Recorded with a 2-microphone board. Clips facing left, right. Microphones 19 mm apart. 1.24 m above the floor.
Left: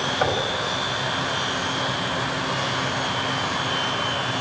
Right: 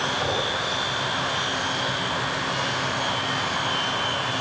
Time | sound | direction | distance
0.2 | knocking | 50° left (ahead or behind) | 6.5 m